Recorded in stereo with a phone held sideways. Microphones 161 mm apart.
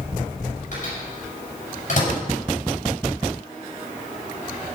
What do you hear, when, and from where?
0.7 s a microwave: 55° left (ahead or behind), 6.5 m